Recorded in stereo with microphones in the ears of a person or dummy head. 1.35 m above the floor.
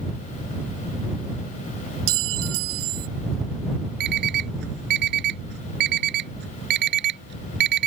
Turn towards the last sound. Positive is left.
turn(degrees=-55)  # may be behind; listen again after turning